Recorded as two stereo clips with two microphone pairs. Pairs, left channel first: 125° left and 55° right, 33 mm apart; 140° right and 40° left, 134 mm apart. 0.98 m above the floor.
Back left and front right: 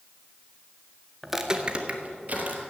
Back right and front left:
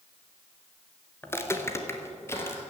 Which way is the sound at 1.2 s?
130° right.